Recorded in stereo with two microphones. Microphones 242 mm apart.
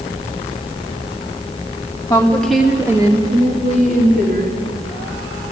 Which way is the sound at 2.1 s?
15° left (ahead or behind).